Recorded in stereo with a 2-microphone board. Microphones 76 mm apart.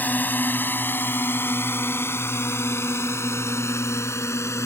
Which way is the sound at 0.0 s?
25° left (ahead or behind).